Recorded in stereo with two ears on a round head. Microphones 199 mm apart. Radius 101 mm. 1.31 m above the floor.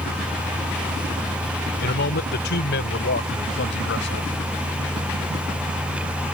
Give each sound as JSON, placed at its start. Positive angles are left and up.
{"t": 1.8, "sound": "a man speaking", "side_deg": 45}